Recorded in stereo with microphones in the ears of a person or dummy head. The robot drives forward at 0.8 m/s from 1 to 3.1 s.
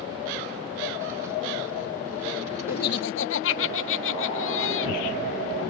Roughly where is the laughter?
Left.